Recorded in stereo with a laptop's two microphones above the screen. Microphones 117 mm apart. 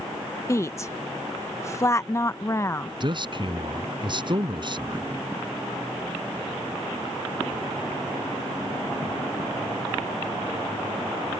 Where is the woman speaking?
25° left (ahead or behind).